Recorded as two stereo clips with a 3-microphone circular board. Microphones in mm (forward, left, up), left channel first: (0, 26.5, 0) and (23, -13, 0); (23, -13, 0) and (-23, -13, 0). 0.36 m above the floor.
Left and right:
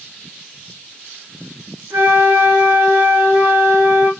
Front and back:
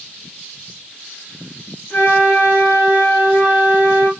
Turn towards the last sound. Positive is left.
turn(degrees=-50)